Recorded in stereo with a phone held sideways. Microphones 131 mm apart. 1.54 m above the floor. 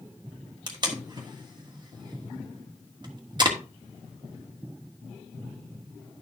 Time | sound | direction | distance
0.7 | tape being pulled | 35° right (ahead or behind) | 1.3 m